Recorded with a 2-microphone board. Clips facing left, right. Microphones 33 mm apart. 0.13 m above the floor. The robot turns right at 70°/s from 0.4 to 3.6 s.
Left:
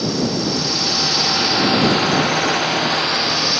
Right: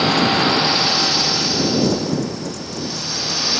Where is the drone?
50° right; by 3.6 s 175° left.